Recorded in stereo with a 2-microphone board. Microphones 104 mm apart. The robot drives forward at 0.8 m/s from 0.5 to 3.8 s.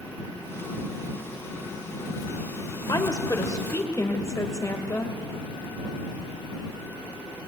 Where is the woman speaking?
40° left (ahead or behind), 1.8 m; by 5.1 s 30° left (ahead or behind), 2 m.